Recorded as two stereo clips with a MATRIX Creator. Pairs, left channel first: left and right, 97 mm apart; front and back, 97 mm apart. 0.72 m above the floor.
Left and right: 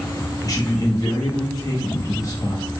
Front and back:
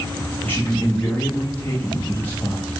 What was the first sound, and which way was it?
A man speaking, 60° left.